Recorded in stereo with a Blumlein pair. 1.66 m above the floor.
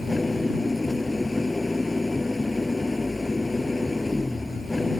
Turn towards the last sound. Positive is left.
turn(degrees=5)